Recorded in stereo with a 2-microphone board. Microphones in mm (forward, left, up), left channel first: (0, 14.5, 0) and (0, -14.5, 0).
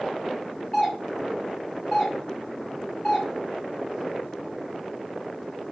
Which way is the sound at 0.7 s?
15° left (ahead or behind).